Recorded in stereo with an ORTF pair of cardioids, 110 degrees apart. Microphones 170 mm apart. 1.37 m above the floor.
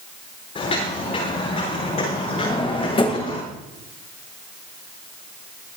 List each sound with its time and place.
0.6 s footsteps: 35° left, 8.5 m; by 3.4 s 45° left, 8 m
2.4 s a drawer: 35° left, 3 m